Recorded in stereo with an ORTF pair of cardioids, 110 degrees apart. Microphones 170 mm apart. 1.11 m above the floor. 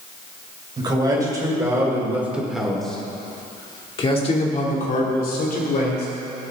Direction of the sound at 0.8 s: 25° right.